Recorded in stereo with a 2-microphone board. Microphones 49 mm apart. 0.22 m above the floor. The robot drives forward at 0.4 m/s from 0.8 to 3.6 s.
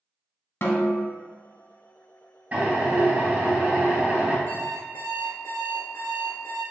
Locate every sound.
0.6 s a snare drum: 50° left (ahead or behind), 0.6 m
2.5 s a drill: 35° right (ahead or behind), 1.9 m; by 4.4 s 25° right (ahead or behind), 2 m
4.5 s an alarm clock: 70° left (ahead or behind), 1.9 m